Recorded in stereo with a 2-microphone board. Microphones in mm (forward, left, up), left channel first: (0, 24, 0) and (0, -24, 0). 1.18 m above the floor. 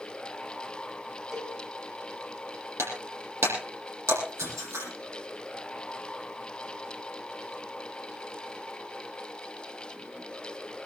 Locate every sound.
1.3 s a cowbell: 10° right (ahead or behind), 7 m
2.8 s breaking glass: 75° right (ahead or behind), 8.5 m